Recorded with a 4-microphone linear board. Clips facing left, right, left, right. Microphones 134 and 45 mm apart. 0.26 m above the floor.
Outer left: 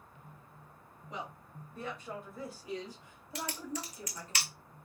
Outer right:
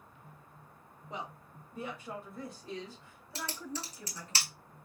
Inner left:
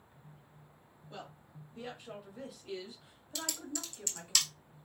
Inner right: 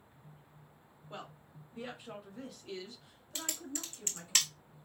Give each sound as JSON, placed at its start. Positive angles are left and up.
{"t": 1.1, "sound": "a woman speaking", "side_deg": -25, "distance_m": 1.2}
{"t": 3.4, "sound": "typing on a keyboard", "side_deg": -35, "distance_m": 1.0}